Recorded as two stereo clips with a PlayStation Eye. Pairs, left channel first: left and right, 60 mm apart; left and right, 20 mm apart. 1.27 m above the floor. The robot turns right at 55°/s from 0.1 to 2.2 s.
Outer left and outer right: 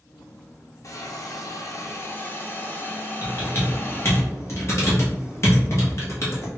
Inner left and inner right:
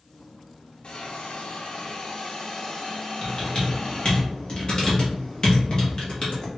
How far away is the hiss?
About 0.7 m.